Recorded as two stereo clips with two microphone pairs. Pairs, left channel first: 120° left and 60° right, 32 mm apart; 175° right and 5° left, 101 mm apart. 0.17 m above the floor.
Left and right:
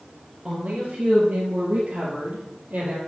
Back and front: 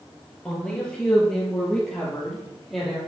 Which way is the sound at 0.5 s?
95° right.